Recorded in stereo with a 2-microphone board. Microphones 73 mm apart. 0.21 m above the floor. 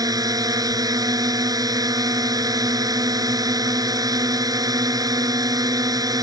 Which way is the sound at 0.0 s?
65° right (ahead or behind).